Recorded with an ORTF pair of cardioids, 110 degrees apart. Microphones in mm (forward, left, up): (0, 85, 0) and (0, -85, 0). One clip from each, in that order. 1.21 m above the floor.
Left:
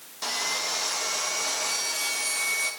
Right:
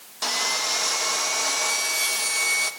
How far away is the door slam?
No door slam in this recording.